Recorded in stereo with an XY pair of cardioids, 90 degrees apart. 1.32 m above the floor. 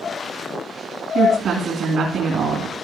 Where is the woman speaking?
65° right, 2.5 m.